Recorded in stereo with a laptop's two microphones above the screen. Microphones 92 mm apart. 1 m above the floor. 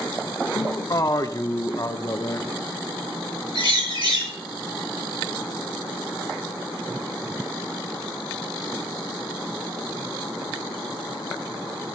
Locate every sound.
0.6 s a man speaking: 40° left (ahead or behind), 0.8 m
3.5 s a bird: 65° right (ahead or behind), 7.5 m